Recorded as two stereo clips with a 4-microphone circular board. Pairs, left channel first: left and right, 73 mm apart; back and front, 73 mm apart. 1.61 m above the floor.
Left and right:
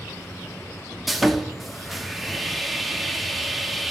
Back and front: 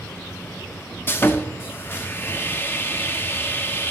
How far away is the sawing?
About 0.5 m.